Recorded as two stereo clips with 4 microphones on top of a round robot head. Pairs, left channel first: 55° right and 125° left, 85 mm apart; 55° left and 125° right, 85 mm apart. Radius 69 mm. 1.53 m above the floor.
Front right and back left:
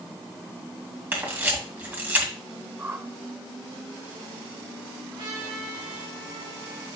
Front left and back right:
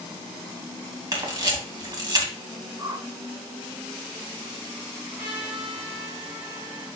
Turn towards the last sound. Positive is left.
turn(degrees=160)